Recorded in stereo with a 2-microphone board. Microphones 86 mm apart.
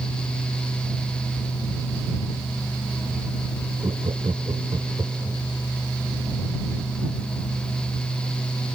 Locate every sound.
3.8 s laughter: 75° right (ahead or behind)